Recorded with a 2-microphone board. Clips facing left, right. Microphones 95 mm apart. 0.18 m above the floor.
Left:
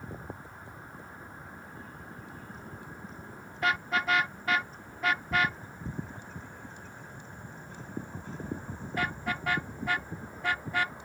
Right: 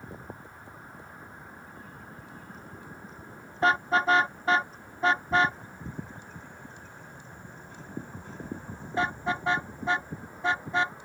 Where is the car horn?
30° right (ahead or behind); by 11.0 s 20° right (ahead or behind).